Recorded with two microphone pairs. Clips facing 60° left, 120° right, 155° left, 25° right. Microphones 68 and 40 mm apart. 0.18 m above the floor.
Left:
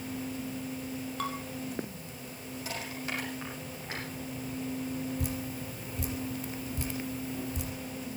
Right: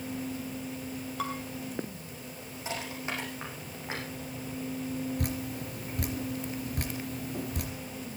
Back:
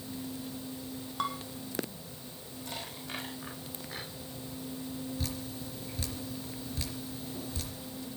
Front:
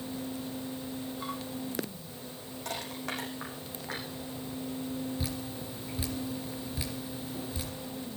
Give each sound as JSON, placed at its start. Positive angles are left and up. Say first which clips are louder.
{"t": 1.2, "sound": "dishes clattering", "louder": "right 1 dB, back 7 dB", "azimuth_deg": 155, "distance_m": 3.5}
{"t": 2.6, "sound": "crushing", "louder": "right 2 dB, front 5 dB", "azimuth_deg": -50, "distance_m": 8.5}
{"t": 5.2, "sound": "dripping", "louder": "right 1 dB, front 2 dB", "azimuth_deg": -105, "distance_m": 3.0}